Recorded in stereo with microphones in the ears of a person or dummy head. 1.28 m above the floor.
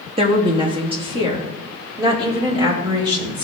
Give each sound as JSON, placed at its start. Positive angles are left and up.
{"t": 0.2, "sound": "a woman speaking", "side_deg": -30, "distance_m": 1.1}